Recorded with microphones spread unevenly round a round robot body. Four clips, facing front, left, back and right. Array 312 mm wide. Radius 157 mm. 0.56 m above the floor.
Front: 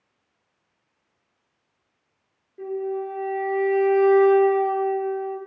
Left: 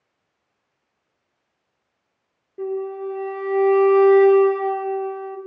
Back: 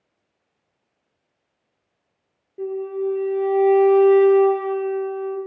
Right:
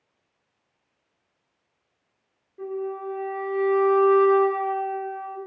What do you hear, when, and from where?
2.6 s a flute: 125° left, 1.3 m